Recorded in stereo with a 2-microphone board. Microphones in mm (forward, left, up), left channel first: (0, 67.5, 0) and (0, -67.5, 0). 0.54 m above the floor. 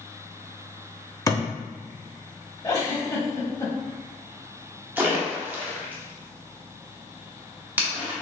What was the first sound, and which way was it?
A thud, 25° left (ahead or behind).